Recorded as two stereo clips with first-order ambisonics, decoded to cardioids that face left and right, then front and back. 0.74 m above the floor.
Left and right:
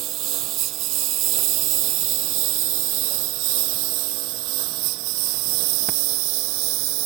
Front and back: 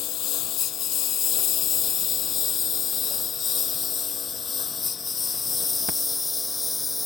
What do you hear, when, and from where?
0.0 s a lawn mower: 50° right; by 7.1 s 80° right